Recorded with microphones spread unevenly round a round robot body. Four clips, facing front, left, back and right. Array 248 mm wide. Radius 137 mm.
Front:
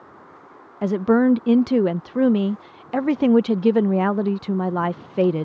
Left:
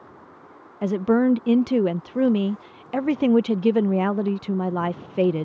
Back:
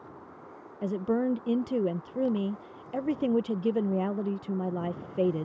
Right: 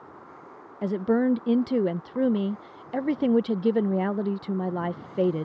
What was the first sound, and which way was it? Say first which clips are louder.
A woman speaking: left 4 dB, front 11 dB; 30° left.